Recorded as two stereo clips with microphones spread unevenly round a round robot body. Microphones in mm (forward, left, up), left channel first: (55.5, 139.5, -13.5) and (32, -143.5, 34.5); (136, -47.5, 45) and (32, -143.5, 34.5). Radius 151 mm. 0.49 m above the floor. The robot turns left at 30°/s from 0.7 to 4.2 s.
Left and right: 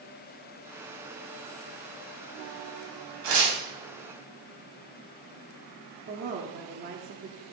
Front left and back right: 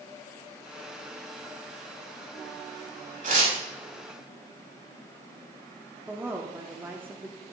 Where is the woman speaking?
95° right, 1.2 m.